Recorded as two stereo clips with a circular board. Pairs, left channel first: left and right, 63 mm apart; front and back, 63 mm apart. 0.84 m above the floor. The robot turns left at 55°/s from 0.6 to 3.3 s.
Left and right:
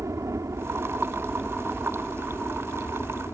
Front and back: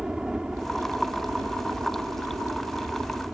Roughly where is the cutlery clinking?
No cutlery clinking in this recording.